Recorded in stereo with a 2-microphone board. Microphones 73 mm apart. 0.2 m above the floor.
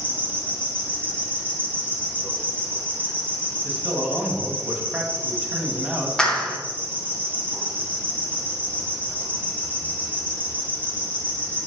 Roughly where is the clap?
Centre.